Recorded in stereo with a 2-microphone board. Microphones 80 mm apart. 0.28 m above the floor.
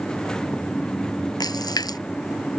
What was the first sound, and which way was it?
A splash, 60° left (ahead or behind).